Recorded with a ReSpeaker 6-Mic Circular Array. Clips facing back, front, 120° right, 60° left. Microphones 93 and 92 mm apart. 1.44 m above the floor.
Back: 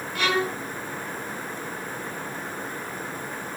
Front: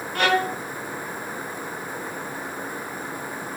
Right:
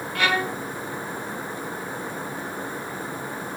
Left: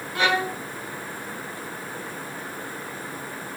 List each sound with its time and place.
0.1 s a violin: straight ahead, 1.5 m